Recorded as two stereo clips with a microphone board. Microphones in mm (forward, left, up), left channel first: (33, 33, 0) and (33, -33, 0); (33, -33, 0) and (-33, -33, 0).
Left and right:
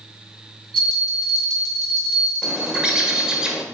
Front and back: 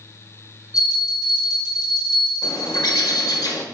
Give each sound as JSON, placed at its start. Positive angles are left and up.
{"t": 0.7, "sound": "a bell", "azimuth_deg": 10, "distance_m": 3.5}
{"t": 2.4, "sound": "a bird", "azimuth_deg": -10, "distance_m": 1.3}